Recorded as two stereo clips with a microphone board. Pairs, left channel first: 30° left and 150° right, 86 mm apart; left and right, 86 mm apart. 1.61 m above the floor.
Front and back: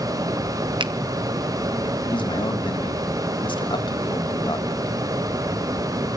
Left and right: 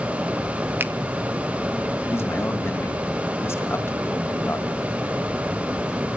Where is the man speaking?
30° left, 3 m.